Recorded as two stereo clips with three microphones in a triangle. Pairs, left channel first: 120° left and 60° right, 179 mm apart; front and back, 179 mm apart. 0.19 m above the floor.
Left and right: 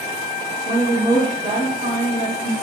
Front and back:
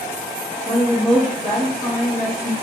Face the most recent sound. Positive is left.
turn(degrees=-80)